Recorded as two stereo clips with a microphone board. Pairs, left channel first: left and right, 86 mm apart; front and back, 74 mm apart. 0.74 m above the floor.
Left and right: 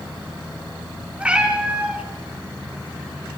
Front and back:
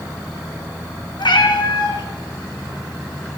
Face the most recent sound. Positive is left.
turn(degrees=-15)